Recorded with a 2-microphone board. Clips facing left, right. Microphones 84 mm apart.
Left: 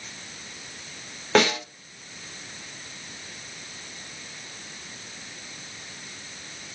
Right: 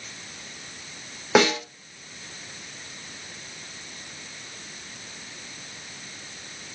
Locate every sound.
1.4 s a snare drum: 10° right (ahead or behind), 3.5 m